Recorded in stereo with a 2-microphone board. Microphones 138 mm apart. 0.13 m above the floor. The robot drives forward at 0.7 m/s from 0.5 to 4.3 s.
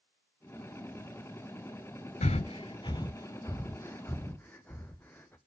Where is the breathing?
60° left (ahead or behind), 0.5 m; by 5.4 s 15° left (ahead or behind), 1.6 m.